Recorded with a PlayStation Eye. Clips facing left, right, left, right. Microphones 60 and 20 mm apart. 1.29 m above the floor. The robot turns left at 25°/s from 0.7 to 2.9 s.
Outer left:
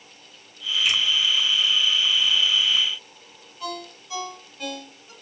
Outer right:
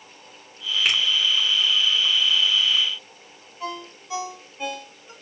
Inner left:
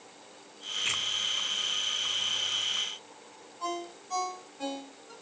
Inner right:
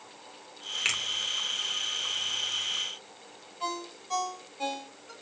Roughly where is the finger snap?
Right.